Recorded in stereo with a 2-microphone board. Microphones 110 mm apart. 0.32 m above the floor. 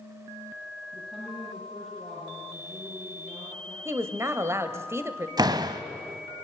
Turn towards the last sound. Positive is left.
turn(degrees=-40)  # may be behind; listen again after turning